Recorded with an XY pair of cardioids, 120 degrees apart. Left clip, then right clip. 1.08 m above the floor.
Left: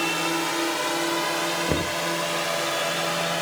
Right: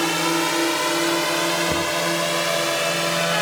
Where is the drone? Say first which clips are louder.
Right 4 dB; 30° right.